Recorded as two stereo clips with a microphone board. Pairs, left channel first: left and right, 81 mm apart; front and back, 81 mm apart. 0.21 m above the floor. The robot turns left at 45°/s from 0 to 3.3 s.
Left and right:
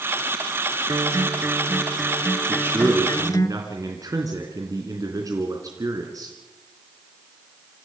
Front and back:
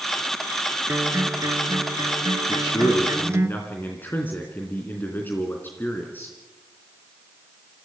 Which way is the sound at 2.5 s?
25° right.